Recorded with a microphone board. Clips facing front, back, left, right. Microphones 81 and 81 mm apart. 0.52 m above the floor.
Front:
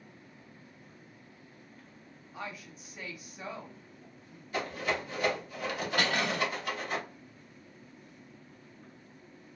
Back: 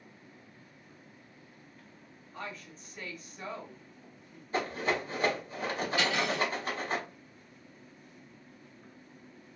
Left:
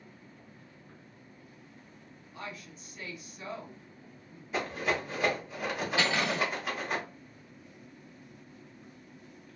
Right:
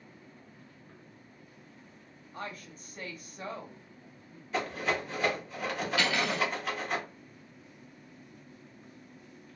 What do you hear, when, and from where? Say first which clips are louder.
2.3 s a woman speaking: even, right 2 dB; 80° right, 0.9 m
4.5 s a rattle: back 2 dB, even; 170° left, 1.1 m
6.0 s cutlery clinking: even, even; 30° left, 1.0 m